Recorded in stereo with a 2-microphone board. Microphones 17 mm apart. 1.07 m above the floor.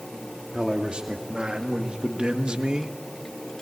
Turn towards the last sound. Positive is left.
turn(degrees=-45)  # may be behind; listen again after turning